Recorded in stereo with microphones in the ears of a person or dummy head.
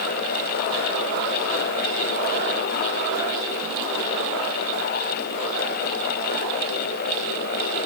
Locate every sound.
Only background noise.